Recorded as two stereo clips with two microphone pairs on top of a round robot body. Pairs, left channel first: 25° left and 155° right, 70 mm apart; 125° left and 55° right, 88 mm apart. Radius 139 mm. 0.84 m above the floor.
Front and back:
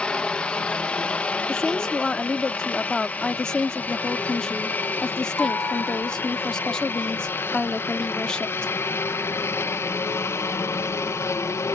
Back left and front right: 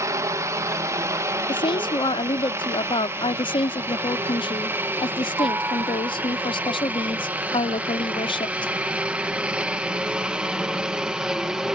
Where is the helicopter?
55° right; by 11.8 s 20° left.